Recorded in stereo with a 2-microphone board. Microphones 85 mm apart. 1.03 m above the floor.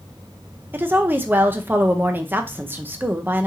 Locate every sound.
0.7 s a woman speaking: 25° right (ahead or behind), 0.6 m